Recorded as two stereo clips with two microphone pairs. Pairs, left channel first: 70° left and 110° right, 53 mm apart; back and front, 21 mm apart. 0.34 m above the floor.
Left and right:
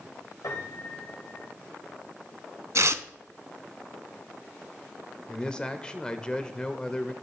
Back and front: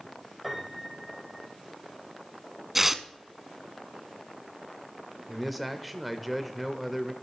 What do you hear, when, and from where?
0.4 s a piano: 75° left, 4 m
2.8 s tearing paper: 85° right, 0.5 m
5.3 s a man speaking: 85° left, 0.8 m